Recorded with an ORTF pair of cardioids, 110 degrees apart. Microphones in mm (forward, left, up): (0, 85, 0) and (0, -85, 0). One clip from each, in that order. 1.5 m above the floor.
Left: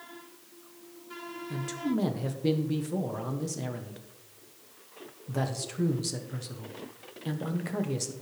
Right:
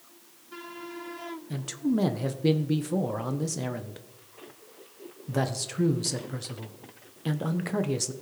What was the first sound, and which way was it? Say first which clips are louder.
A man speaking: right 2 dB; 20° right.